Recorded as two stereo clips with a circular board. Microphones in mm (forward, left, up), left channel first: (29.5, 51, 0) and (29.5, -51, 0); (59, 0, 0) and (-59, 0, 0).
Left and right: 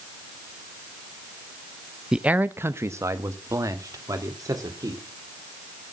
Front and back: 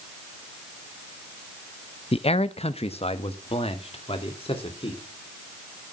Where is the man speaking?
5° right, 0.6 m; by 5.0 s 35° right, 3 m.